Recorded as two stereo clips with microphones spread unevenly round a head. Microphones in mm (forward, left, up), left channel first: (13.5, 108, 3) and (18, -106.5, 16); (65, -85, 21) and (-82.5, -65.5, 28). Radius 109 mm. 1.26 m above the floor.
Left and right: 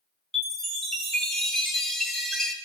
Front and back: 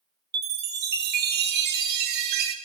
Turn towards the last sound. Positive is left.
turn(degrees=180)